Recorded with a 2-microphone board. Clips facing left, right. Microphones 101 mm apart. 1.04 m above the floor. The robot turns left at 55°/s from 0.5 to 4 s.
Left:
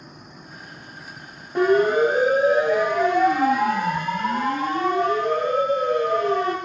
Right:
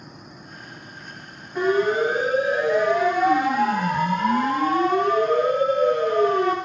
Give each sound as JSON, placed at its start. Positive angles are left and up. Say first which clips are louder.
{"t": 1.6, "sound": "a siren", "louder": "left 3 dB", "side_deg": 80, "distance_m": 9.5}